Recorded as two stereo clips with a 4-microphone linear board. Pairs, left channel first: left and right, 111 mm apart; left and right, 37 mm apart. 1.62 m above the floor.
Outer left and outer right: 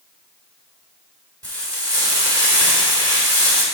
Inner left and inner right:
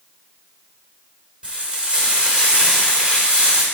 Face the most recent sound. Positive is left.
turn(degrees=-30)  # may be behind; listen again after turning